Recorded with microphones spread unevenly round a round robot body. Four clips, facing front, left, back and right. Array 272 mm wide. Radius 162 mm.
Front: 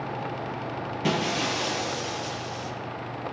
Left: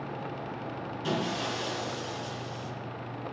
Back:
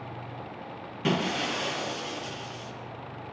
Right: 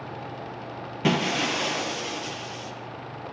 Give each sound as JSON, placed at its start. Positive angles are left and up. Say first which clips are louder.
{"t": 1.0, "sound": "breaking glass", "louder": "right 7 dB, front 1 dB", "azimuth_deg": -80, "distance_m": 7.5}